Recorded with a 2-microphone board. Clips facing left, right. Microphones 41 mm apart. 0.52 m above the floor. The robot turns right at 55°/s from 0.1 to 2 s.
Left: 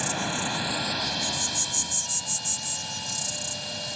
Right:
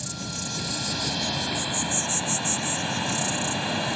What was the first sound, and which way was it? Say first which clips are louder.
An insect: left 6 dB; 120° left.